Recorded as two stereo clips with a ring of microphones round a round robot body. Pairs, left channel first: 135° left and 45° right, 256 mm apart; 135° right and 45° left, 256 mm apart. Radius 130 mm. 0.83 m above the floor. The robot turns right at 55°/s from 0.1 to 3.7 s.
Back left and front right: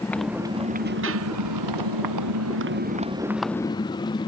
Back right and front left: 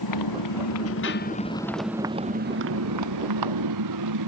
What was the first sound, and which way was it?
A motorcycle, 140° right.